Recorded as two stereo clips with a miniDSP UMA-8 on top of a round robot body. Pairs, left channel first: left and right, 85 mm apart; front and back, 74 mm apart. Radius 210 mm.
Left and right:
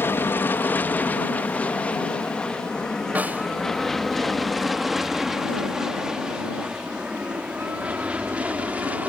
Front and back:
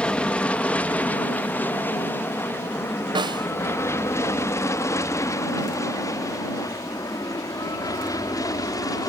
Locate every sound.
0.0 s an aircraft: 60° left; by 9.1 s 20° right
3.1 s a snare drum: 165° right